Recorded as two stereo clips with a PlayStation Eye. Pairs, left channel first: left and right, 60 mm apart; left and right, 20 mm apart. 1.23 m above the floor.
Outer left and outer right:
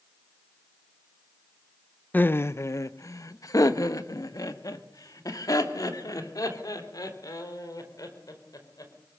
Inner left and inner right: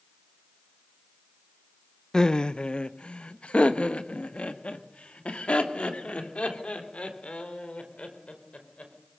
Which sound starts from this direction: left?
Laughter, at 2.1 s.